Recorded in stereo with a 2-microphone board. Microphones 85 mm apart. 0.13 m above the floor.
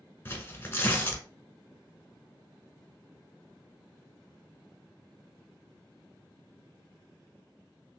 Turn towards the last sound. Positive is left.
turn(degrees=25)  # may be behind; listen again after turning